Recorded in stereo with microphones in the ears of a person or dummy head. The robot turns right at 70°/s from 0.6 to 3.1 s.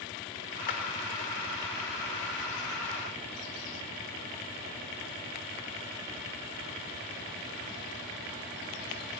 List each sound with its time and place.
0.7 s a clap: 50° left (ahead or behind), 3.5 m; by 0.8 s 40° left (ahead or behind), 3.5 m